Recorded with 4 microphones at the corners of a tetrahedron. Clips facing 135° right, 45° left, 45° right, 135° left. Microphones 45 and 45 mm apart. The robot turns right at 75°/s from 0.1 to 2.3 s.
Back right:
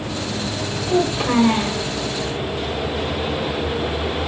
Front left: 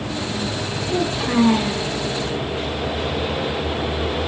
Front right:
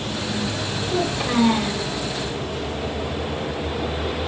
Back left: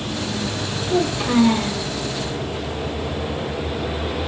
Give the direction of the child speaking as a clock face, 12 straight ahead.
5 o'clock.